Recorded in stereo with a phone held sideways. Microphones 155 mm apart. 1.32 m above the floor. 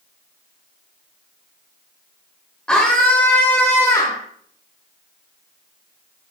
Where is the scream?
5° left (ahead or behind), 3.5 m; by 4.2 s 25° left (ahead or behind), 2.5 m.